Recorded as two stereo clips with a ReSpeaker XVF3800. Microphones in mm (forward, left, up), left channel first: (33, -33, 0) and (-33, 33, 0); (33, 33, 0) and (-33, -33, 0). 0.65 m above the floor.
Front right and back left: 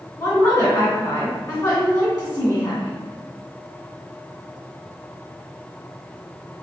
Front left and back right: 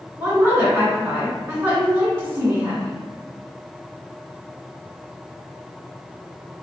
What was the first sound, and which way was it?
A woman speaking, 80° right.